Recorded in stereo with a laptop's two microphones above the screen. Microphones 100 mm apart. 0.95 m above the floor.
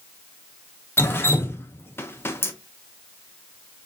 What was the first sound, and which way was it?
Dripping, 25° left (ahead or behind).